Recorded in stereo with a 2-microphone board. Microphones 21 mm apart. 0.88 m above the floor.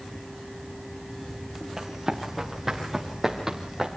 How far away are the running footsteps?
About 6.5 m.